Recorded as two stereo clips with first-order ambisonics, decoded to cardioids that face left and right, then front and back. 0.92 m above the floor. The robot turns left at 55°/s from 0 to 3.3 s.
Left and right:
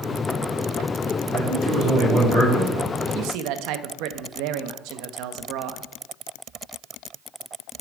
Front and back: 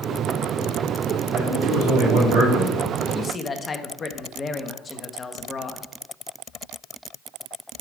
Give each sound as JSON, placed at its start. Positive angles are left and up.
{"t": 1.3, "sound": "a man speaking", "azimuth_deg": -135, "distance_m": 3.0}
{"t": 3.1, "sound": "a man speaking", "azimuth_deg": -60, "distance_m": 0.8}